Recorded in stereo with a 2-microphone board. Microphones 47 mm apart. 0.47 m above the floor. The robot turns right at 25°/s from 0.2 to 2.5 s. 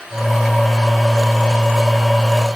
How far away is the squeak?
I don't hear a squeak.